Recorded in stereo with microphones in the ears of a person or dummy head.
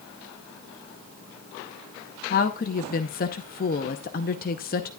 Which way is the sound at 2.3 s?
50° left (ahead or behind).